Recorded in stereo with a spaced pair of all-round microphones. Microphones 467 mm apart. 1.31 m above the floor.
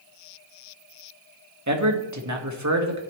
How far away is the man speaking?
About 1.6 m.